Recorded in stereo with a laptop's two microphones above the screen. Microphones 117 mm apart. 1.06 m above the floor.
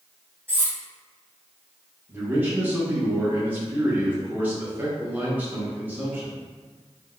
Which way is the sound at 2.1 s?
15° right (ahead or behind).